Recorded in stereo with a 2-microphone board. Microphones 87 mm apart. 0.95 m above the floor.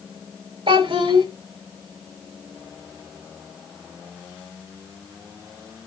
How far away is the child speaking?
About 4.5 m.